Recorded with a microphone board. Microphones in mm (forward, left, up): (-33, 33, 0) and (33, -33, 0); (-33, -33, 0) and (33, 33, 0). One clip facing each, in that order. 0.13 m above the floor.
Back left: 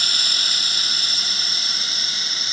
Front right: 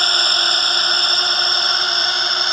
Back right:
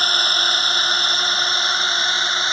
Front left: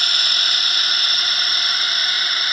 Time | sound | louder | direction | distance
0.0 | a drone | front right 10 dB, back right 5 dB | 80° right | ?